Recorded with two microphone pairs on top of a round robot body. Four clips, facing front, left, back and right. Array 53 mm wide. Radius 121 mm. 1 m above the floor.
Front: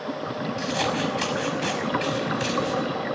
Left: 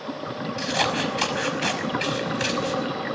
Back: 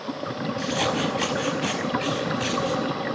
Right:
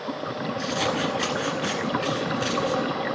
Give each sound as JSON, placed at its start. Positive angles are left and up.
{"t": 0.6, "sound": "scissors", "azimuth_deg": 85, "distance_m": 5.5}